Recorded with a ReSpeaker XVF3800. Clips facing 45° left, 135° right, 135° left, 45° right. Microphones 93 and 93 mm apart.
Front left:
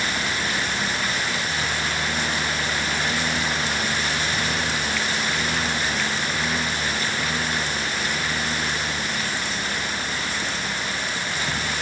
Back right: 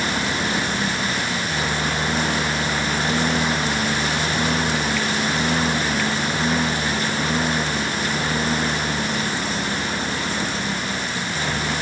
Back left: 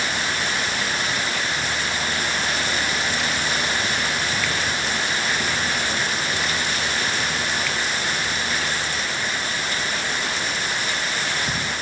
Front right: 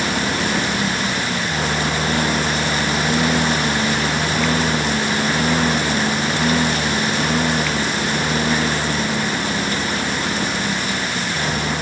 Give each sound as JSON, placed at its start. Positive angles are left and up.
{"t": 0.0, "sound": "a lawn mower", "azimuth_deg": -75}